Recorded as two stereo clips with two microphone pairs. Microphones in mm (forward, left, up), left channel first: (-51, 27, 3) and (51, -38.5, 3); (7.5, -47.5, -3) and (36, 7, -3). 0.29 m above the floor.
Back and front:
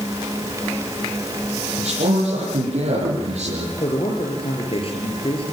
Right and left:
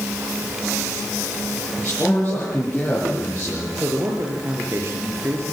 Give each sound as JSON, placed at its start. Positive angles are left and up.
{"t": 1.8, "sound": "a man speaking", "azimuth_deg": -45, "distance_m": 7.0}
{"t": 3.8, "sound": "a man speaking", "azimuth_deg": 110, "distance_m": 5.0}